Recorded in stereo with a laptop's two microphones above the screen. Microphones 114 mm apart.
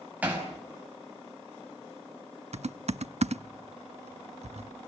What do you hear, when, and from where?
0.2 s hammering: 15° right (ahead or behind), 5 m
2.5 s typing on a keyboard: 75° right (ahead or behind), 0.8 m